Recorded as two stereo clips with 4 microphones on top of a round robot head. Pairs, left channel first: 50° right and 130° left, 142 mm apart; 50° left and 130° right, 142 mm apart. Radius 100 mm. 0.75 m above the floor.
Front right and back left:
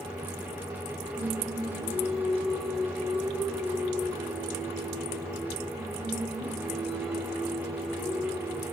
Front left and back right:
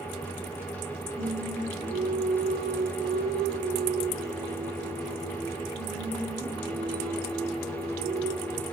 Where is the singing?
140° right, 2 m.